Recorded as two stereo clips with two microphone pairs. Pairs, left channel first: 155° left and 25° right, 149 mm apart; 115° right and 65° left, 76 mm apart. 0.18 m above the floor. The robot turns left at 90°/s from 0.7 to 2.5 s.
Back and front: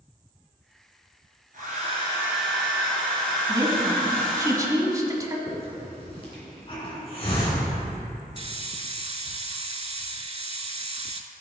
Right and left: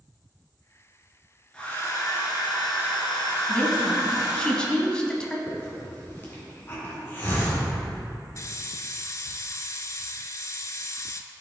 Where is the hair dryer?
35° right, 2.5 m; by 4.5 s 125° right, 2.5 m.